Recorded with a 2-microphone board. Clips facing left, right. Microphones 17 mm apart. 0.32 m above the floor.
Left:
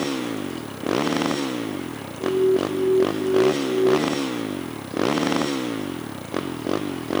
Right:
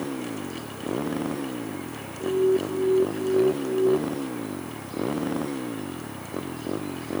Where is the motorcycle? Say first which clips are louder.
Left 5 dB; 75° left (ahead or behind); by 7.2 s 65° left (ahead or behind).